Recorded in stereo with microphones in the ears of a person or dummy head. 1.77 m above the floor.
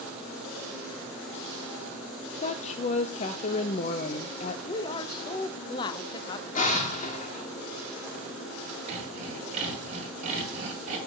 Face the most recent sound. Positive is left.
turn(degrees=-40)  # may be behind; listen again after turning